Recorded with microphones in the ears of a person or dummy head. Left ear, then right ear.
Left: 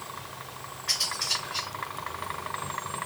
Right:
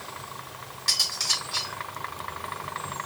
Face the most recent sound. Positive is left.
turn(degrees=-85)